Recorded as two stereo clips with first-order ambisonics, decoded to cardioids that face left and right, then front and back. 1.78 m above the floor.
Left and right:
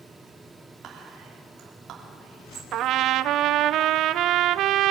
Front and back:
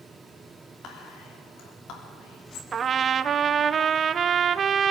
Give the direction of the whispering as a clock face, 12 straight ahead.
1 o'clock.